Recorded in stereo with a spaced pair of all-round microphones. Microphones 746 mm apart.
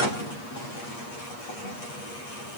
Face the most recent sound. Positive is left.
No sound to turn to.